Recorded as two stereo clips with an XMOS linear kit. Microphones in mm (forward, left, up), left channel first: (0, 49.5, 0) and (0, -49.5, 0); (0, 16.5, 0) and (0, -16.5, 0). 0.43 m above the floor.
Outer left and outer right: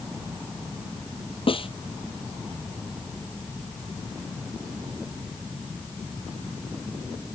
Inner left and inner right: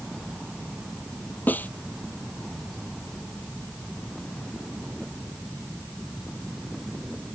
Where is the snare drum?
60° left (ahead or behind).